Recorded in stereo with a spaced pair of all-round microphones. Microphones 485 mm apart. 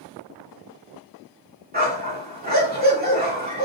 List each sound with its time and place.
1.7 s a dog barking: 20° right (ahead or behind), 1.8 m